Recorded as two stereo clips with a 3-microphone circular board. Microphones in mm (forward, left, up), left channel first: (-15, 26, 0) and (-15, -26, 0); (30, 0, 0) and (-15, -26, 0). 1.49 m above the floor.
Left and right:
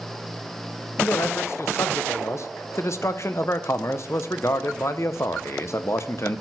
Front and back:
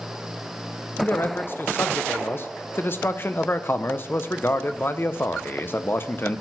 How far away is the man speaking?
About 0.7 m.